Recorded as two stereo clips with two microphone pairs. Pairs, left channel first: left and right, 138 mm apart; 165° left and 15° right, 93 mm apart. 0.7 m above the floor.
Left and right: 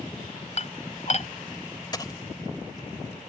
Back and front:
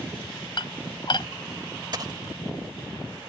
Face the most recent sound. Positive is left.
turn(degrees=25)